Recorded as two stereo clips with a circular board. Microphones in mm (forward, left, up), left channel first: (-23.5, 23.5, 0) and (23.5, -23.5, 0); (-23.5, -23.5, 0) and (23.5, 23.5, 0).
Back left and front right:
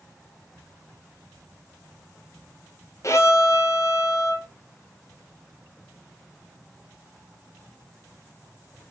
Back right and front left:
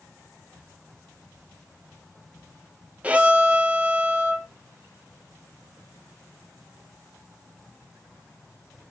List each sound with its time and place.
3.0 s a violin: 110° left, 0.8 m